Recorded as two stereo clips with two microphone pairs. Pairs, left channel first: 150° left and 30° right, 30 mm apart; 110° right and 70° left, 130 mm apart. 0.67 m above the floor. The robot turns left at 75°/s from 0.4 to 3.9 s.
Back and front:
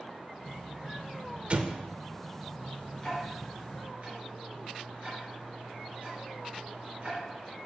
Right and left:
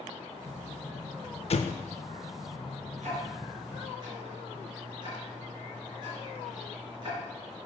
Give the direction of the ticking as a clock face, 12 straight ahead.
9 o'clock.